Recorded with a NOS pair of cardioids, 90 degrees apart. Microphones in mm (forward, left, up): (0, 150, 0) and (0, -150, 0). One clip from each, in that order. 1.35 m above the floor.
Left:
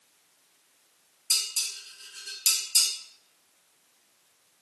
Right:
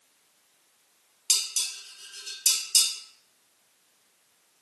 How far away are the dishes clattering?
About 1.9 m.